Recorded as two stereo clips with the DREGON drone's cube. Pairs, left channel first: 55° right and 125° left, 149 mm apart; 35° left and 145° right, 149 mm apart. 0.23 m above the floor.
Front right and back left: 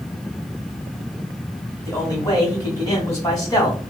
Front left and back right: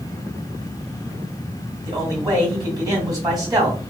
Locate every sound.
1.9 s a man speaking: 100° right, 1.6 m